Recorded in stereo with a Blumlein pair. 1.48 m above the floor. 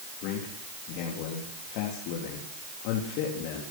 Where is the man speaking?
45° left, 3.5 m.